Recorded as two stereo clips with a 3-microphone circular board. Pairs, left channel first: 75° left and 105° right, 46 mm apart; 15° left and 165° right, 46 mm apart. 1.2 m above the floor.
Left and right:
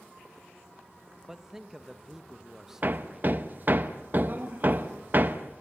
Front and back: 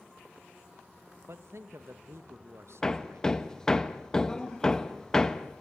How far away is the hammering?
About 0.9 m.